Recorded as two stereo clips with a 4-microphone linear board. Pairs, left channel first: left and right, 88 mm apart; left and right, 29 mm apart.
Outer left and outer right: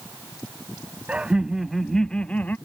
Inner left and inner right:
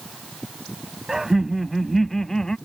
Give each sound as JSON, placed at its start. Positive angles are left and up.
{"t": 1.1, "sound": "laughter", "side_deg": -15}